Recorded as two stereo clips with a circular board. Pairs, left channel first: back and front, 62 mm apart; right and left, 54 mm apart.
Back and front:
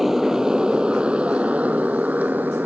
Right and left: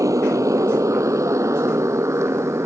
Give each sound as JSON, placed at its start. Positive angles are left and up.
{"t": 0.0, "sound": "a motorcycle", "azimuth_deg": 85}